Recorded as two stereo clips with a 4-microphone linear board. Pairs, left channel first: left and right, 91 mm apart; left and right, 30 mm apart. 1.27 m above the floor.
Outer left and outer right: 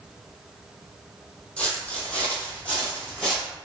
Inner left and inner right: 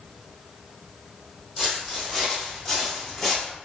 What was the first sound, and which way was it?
Footsteps, 15° left (ahead or behind).